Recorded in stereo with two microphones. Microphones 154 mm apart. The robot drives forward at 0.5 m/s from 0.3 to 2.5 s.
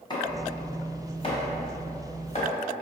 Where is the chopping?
30° left (ahead or behind), 1.7 m; by 2.5 s 50° left (ahead or behind), 1.2 m.